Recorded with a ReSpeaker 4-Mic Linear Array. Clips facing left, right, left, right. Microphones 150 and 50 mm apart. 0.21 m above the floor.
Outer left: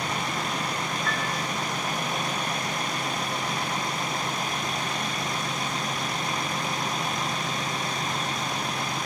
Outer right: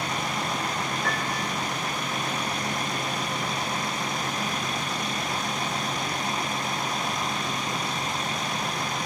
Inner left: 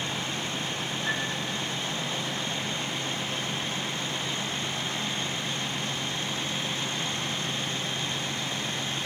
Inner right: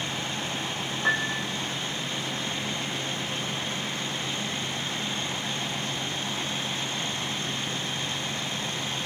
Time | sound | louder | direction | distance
1.0 | a piano | outer right 1 dB, inner right 6 dB | 75° right (ahead or behind) | 5 m